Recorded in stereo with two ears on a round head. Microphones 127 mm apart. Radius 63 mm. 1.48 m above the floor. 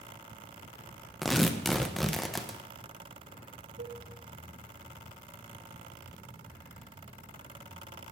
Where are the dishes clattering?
75° right (ahead or behind), 4.5 m.